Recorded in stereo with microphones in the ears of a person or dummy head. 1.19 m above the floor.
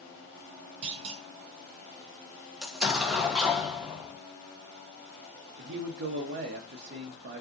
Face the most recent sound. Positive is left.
turn(degrees=-55)  # may be behind; listen again after turning